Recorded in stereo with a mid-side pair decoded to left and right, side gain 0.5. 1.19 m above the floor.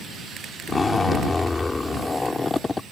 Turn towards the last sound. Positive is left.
turn(degrees=20)